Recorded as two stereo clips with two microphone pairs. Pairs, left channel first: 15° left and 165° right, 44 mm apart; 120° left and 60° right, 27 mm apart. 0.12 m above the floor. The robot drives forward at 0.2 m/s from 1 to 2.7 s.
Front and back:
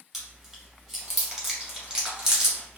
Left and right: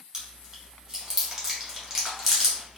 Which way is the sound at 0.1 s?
100° right.